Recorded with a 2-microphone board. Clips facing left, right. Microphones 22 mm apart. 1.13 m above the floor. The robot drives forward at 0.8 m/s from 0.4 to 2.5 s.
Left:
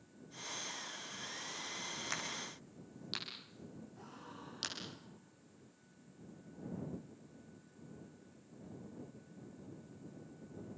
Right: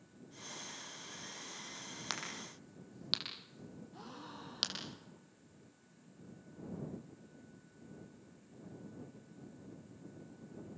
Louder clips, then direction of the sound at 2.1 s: Left 1 dB; 35° right (ahead or behind).